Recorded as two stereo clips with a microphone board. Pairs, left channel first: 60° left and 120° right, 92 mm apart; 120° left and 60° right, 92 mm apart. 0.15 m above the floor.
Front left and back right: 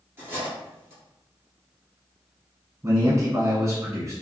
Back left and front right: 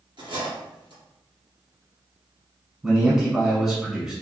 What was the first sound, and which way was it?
Cutlery clinking, 60° right.